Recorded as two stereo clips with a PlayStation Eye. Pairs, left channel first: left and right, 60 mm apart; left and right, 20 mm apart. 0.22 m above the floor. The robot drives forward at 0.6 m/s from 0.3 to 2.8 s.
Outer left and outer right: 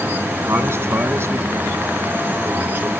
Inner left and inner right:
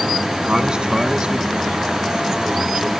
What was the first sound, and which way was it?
A man speaking, 50° right (ahead or behind).